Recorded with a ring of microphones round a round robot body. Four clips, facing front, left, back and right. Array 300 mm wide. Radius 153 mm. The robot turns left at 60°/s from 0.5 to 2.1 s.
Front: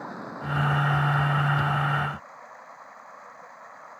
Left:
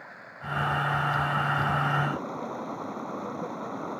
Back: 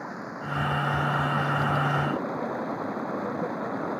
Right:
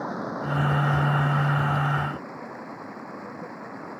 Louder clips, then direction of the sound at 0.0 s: Right 12 dB, even; 95° right.